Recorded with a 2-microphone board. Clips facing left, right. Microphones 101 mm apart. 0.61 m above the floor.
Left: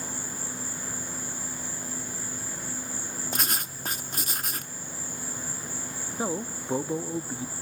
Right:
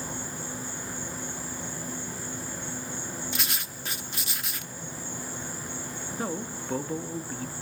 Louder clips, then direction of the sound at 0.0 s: Right 2 dB; 5° left (ahead or behind).